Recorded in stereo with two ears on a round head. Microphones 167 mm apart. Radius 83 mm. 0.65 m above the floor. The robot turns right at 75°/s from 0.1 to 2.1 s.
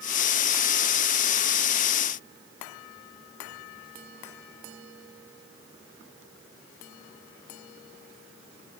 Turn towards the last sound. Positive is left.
No sound to turn to.